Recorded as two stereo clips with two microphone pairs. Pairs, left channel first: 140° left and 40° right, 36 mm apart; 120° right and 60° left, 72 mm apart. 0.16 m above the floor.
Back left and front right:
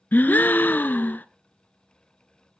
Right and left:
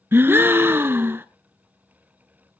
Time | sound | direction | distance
0.1 | a gasp | 115° left | 0.6 m